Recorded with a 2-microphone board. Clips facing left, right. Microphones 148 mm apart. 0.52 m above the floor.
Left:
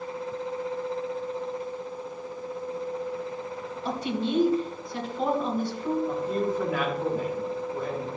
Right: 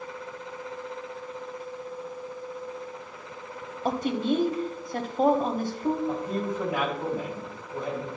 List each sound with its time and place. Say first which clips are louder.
3.9 s a woman speaking: right 3 dB; 50° right (ahead or behind), 1.1 m
6.1 s a man speaking: left 2 dB; 15° right (ahead or behind), 3.5 m